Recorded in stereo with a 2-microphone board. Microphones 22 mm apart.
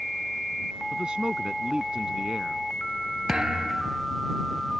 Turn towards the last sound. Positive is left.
turn(degrees=-35)  # may be behind; listen again after turning